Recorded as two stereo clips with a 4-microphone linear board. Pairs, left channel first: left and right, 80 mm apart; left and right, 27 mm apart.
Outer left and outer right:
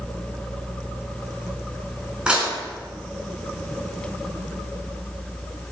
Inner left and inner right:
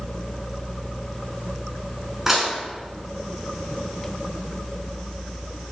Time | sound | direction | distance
2.3 | dishes clattering | 15° right (ahead or behind) | 4.5 m